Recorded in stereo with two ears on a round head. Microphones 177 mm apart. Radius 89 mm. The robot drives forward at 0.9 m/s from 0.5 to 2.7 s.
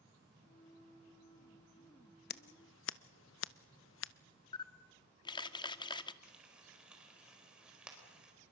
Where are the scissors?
50° left (ahead or behind), 0.7 m; by 4.1 s 70° left (ahead or behind), 0.6 m.